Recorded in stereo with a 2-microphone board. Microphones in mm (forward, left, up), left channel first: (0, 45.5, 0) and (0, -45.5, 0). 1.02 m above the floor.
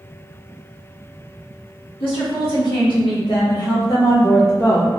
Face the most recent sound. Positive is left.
turn(degrees=25)  # may be behind; listen again after turning